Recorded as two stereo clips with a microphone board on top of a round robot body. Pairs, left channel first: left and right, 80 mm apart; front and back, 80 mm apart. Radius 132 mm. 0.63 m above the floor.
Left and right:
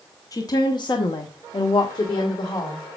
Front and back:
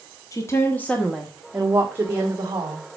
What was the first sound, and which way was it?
A woman speaking, 45° left.